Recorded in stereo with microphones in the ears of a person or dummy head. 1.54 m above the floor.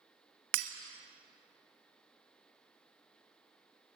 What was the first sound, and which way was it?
Breaking glass, 55° right (ahead or behind).